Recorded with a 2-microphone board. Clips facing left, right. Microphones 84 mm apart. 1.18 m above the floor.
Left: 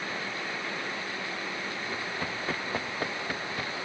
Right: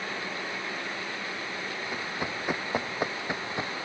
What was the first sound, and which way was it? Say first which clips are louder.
Running footsteps: right 2 dB; 10° right (ahead or behind).